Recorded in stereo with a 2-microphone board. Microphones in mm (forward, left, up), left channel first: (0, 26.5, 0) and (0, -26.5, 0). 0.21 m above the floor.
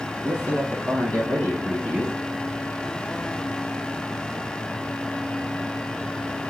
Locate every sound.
0.2 s a man speaking: 50° left (ahead or behind), 2.5 m; by 2.1 s 20° left (ahead or behind), 2 m